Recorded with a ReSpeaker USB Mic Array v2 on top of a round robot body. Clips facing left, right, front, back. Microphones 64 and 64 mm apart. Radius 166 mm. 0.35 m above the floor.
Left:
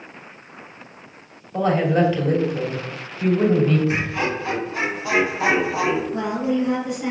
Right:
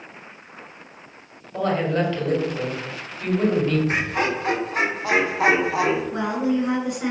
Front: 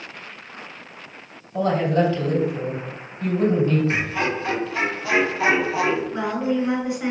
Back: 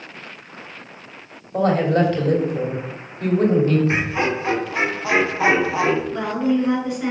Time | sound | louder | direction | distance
1.5 | a man speaking | left 3 dB, back 2 dB | 170° left | 2.5 m
3.9 | laughter | even, back 2 dB | 120° right | 2 m
6.1 | a woman speaking | even, back 3 dB | 75° right | 3.5 m